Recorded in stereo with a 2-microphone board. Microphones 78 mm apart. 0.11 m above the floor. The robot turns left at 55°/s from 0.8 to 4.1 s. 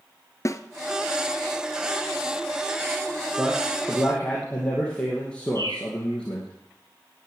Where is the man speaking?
155° right, 2.5 m; by 6.5 s 165° left, 2.5 m.